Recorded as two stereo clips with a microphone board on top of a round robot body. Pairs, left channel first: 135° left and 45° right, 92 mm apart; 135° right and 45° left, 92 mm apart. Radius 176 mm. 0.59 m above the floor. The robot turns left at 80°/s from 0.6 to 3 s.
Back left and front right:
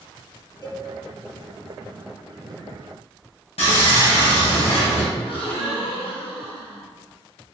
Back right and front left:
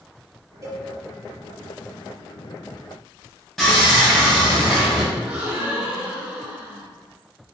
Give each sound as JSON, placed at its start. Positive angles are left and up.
{"t": 0.6, "sound": "a cowbell", "azimuth_deg": 85, "distance_m": 1.7}
{"t": 3.6, "sound": "sawing", "azimuth_deg": 140, "distance_m": 0.6}
{"t": 5.2, "sound": "a gasp", "azimuth_deg": 120, "distance_m": 1.0}